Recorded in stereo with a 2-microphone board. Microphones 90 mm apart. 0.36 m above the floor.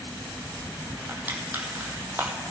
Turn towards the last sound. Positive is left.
turn(degrees=-20)  # may be behind; listen again after turning